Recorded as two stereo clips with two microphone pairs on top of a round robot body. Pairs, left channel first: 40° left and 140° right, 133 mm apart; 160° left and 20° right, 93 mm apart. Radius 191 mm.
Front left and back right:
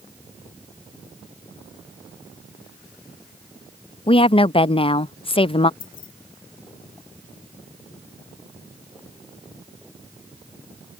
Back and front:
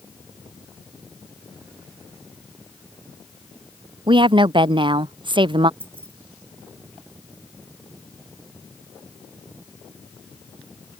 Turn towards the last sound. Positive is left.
turn(degrees=45)